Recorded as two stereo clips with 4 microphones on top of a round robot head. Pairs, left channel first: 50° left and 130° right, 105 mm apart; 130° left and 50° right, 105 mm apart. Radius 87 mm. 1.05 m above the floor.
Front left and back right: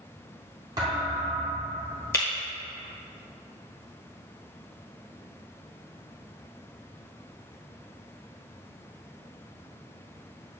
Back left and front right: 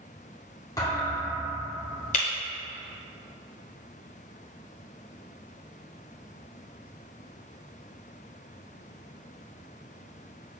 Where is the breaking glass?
120° left, 1.1 m.